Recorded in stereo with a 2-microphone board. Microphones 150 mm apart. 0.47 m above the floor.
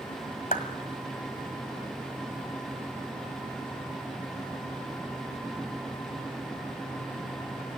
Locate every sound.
0.5 s a clap: 65° left (ahead or behind), 1.7 m